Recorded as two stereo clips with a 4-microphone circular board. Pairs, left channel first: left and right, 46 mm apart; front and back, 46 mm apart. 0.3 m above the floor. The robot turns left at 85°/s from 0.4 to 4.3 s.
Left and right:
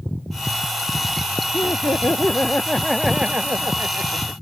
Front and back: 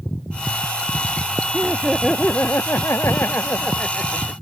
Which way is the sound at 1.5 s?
120° left.